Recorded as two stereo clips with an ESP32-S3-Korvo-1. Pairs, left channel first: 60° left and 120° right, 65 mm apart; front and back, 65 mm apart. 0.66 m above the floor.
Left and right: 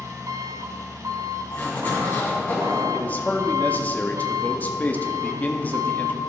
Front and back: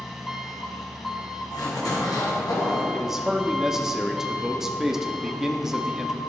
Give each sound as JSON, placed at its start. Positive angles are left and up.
{"t": 0.0, "sound": "an engine running", "azimuth_deg": -90, "distance_m": 1.3}
{"t": 1.5, "sound": "a zipper", "azimuth_deg": 0, "distance_m": 3.0}
{"t": 2.9, "sound": "a man speaking", "azimuth_deg": 105, "distance_m": 0.7}